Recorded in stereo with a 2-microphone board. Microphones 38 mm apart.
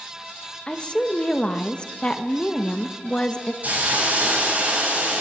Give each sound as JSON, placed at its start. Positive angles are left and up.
{"t": 0.7, "sound": "a woman speaking", "side_deg": 25, "distance_m": 0.9}
{"t": 3.6, "sound": "a hiss", "side_deg": -45, "distance_m": 5.5}